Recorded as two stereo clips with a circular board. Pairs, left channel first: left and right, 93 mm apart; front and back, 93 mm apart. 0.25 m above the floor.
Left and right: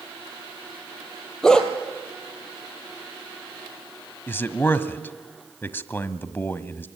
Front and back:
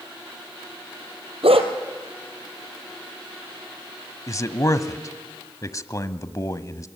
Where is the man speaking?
35° left, 1.3 m.